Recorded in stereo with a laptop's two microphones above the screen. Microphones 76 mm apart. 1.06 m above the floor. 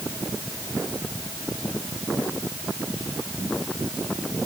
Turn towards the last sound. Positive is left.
No sound to turn to.